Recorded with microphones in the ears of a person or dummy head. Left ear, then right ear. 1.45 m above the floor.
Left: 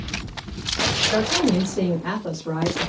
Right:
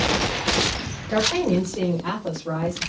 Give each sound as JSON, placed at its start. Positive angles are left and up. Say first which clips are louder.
{"t": 1.1, "sound": "a woman speaking", "louder": "left 1 dB", "side_deg": -5, "distance_m": 1.9}